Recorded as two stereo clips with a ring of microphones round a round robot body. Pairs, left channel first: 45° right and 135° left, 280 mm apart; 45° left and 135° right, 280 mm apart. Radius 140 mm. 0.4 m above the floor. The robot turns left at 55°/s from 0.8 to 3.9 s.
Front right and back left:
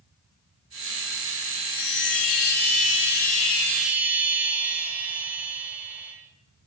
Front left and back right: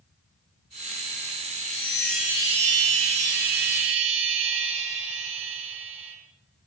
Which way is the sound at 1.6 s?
10° right.